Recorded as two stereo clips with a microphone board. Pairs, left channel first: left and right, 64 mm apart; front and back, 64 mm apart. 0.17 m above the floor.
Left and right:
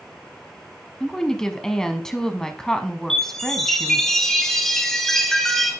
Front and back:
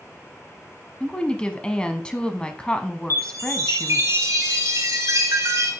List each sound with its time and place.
1.0 s a woman speaking: 35° left, 1.0 m
3.1 s a chime: 170° left, 2.5 m